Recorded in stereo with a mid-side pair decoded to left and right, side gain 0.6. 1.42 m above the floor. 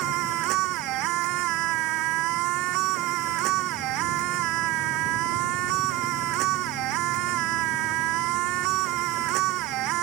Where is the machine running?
70° right.